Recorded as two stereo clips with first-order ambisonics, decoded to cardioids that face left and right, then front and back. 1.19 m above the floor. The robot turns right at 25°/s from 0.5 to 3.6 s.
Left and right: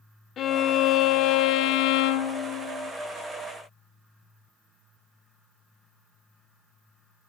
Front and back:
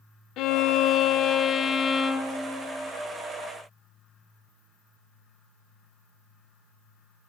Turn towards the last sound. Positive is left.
turn(degrees=110)